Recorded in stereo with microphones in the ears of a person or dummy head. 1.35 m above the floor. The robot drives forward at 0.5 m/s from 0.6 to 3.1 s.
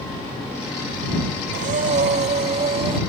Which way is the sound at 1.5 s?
40° right (ahead or behind).